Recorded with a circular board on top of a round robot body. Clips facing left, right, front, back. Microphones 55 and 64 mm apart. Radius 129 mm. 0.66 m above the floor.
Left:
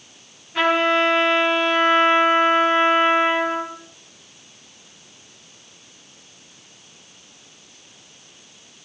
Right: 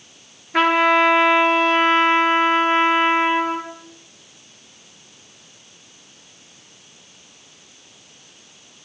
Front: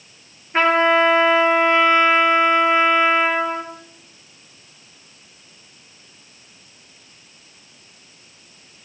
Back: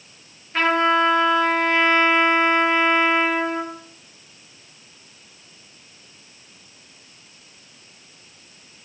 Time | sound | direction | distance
0.5 | a trumpet | 65° right | 4 m